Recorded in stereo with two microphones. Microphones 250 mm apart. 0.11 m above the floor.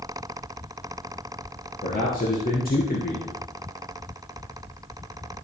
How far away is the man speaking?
About 2.5 m.